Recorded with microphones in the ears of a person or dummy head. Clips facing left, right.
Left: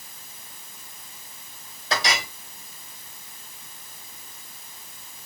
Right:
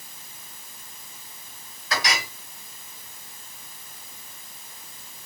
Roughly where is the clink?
Left.